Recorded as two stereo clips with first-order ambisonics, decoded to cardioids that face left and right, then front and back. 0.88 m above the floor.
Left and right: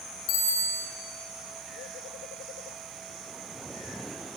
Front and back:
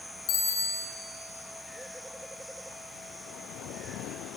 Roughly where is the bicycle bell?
Ahead left.